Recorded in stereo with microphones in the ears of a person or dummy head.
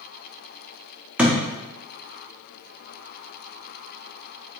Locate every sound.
1.2 s a thud: 10° right (ahead or behind), 0.9 m